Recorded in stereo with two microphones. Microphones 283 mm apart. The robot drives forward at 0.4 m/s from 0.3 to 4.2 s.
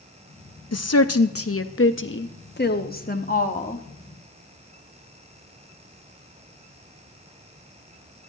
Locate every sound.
0.7 s a woman speaking: 60° left (ahead or behind), 0.7 m; by 3.8 s 25° left (ahead or behind), 1.5 m